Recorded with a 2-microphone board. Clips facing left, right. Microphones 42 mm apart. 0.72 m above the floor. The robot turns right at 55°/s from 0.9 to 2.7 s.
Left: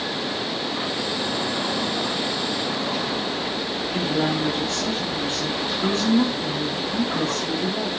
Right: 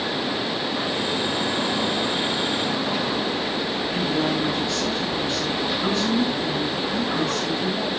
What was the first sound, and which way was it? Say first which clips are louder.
A woman speaking: left 1 dB; 40° left (ahead or behind).